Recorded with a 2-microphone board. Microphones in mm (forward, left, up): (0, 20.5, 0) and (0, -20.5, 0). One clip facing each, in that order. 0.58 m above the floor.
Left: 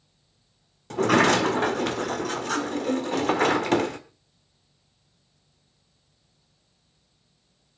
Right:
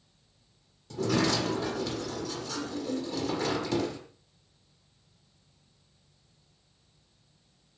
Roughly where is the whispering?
I don't hear whispering.